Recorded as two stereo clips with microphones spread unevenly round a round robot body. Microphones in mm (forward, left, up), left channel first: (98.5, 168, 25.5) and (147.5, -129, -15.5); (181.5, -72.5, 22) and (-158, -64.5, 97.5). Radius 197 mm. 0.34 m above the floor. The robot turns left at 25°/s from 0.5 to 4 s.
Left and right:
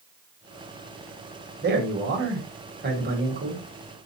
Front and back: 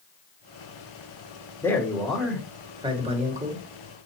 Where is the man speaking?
65° right, 1.5 m; by 3.6 s 115° right, 1.5 m.